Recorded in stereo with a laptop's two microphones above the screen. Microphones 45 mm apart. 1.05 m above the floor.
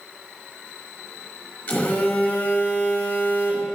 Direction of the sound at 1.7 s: 35° left (ahead or behind).